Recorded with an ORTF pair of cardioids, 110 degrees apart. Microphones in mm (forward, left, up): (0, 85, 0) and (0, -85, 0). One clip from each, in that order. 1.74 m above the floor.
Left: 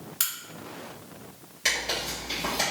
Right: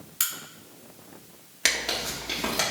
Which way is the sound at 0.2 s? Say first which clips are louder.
Right 1 dB; straight ahead.